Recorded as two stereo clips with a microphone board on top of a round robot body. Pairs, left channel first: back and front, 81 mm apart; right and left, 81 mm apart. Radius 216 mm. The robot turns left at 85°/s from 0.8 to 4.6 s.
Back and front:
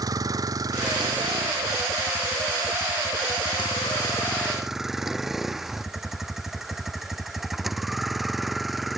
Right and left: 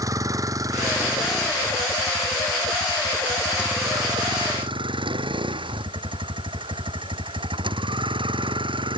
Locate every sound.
0.0 s a vehicle: 45° left; by 9.0 s 85° left